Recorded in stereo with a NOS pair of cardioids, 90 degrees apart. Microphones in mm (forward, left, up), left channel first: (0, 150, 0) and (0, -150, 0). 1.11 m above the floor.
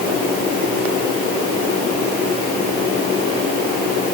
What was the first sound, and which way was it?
Only background noise.